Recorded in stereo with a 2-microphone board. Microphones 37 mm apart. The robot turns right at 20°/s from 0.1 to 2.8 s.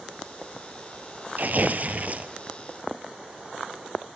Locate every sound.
1.4 s tearing paper: 55° right (ahead or behind), 1.1 m; by 2.3 s 40° right (ahead or behind), 1.1 m